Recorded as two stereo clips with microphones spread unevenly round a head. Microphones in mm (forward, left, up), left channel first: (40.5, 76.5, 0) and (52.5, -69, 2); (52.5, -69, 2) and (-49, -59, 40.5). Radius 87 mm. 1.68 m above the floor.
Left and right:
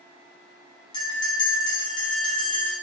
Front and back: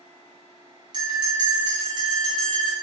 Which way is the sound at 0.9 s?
155° left.